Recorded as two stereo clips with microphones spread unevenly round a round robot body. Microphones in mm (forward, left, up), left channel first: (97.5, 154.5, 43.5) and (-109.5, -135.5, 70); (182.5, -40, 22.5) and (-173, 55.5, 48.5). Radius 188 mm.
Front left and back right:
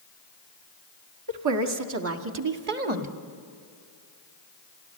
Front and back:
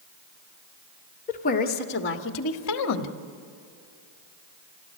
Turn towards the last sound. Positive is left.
turn(degrees=-55)